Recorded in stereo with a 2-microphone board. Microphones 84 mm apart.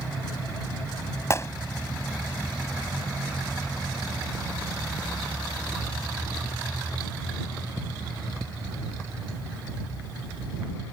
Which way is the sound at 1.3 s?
35° left (ahead or behind).